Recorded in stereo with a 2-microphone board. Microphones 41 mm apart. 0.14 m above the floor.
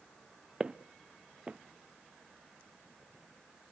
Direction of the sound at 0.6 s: 35° right (ahead or behind).